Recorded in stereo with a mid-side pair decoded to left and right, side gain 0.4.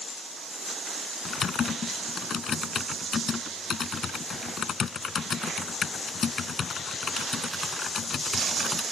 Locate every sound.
1.2 s typing on a keyboard: 50° left